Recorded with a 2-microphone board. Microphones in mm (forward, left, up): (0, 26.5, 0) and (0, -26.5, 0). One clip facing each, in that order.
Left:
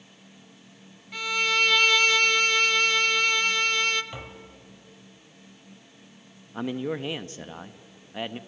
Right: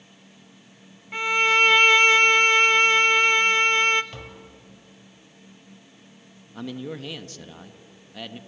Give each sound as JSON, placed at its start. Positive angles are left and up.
{"t": 1.1, "sound": "a violin", "side_deg": -30, "distance_m": 0.8}
{"t": 4.1, "sound": "tapping", "side_deg": 15, "distance_m": 2.0}
{"t": 6.5, "sound": "a man speaking", "side_deg": 30, "distance_m": 1.0}